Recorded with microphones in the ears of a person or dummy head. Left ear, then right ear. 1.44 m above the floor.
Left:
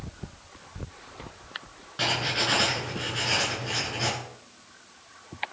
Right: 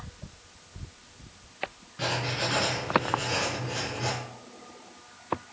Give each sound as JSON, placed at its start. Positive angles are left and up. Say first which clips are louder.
{"t": 2.0, "sound": "writing", "louder": "left 4 dB", "side_deg": 40, "distance_m": 8.0}